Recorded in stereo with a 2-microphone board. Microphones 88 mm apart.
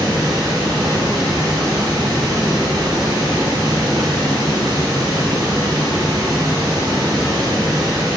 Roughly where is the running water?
Right.